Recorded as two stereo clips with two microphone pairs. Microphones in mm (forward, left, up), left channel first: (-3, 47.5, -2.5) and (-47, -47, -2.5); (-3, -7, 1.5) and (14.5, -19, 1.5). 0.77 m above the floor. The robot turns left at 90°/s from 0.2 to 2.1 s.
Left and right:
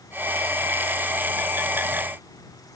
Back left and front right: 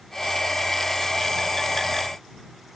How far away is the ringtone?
I don't hear a ringtone.